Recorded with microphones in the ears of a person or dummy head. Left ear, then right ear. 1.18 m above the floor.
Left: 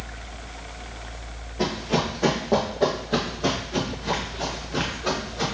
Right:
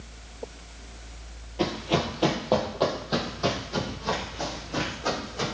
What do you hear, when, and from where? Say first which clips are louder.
1.6 s running footsteps: left 2 dB; 30° right (ahead or behind), 1.3 m; by 5.5 s 70° right (ahead or behind), 3.5 m